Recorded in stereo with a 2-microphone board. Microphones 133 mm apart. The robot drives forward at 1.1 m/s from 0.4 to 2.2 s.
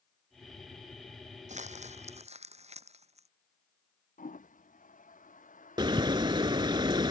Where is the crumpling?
65° right (ahead or behind); by 3.3 s 55° right (ahead or behind).